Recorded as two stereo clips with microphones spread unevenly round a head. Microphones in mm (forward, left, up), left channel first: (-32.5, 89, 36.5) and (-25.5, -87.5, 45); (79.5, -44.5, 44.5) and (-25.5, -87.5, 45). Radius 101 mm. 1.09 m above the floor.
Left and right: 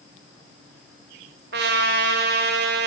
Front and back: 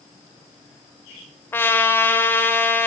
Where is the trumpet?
50° right, 2.5 m.